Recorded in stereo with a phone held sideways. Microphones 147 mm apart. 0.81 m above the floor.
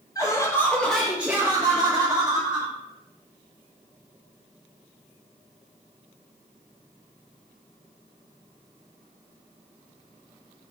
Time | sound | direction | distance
0.1 | laughter | 25° left (ahead or behind) | 0.7 m